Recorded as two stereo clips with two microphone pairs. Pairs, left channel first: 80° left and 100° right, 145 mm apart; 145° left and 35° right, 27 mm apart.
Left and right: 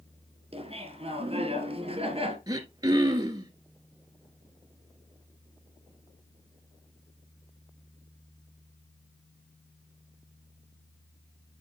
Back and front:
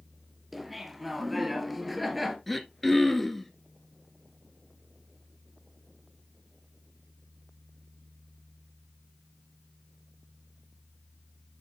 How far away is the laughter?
About 1.8 m.